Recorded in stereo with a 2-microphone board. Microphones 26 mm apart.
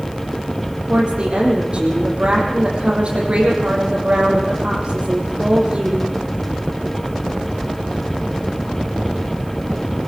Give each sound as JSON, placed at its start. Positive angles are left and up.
{"t": 0.9, "sound": "a woman speaking", "side_deg": -40, "distance_m": 7.0}